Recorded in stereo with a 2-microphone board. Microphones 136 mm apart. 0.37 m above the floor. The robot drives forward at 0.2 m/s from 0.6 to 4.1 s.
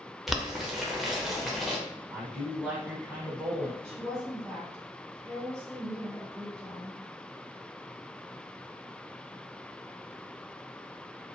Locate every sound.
0.3 s boiling: centre (ahead or behind), 0.6 m
2.1 s a man speaking: 10° right (ahead or behind), 1.1 m
3.8 s a woman speaking: 5° left (ahead or behind), 1.8 m